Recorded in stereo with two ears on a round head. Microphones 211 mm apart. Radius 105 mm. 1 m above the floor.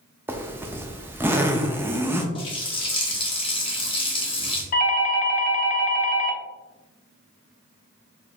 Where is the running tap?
25° left (ahead or behind), 1.0 m.